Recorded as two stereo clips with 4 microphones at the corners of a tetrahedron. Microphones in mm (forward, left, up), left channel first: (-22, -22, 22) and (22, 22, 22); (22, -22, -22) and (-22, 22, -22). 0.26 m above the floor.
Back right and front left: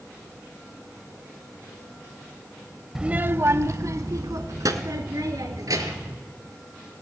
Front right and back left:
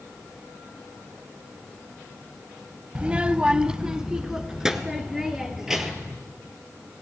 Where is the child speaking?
115° left, 0.5 m; by 6.2 s 55° left, 3 m.